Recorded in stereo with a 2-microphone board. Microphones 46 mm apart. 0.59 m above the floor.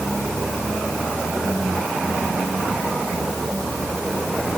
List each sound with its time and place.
Only background noise.